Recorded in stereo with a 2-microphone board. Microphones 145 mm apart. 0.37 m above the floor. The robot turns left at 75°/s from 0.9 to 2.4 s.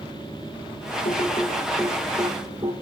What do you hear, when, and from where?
1.1 s typing on a keyboard: 65° left (ahead or behind), 5 m; by 2.7 s 35° right (ahead or behind), 5 m